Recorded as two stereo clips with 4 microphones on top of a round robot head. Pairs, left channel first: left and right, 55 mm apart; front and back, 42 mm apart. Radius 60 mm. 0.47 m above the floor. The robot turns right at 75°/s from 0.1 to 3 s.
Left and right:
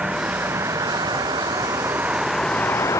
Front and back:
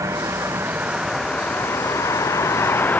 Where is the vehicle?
170° right; by 3.0 s 50° left.